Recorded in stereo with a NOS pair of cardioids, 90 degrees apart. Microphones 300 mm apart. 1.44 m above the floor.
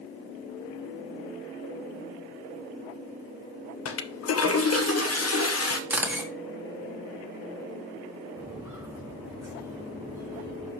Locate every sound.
3.9 s a toilet flushing: 55° left, 1.5 m
5.9 s a camera shutter: 5° right, 3 m
8.4 s footsteps: 10° right, 5.5 m